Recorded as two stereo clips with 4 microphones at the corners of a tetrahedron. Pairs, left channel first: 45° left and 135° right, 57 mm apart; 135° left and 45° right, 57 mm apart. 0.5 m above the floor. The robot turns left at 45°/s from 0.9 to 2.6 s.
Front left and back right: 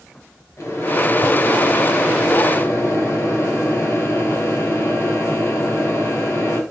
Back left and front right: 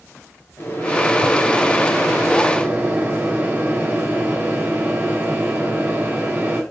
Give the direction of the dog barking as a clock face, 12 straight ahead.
No dog barking in this recording.